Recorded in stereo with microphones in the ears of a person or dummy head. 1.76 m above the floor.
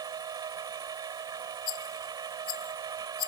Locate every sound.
0.0 s a machine running: 25° right (ahead or behind)
1.7 s a rattle: 25° left (ahead or behind)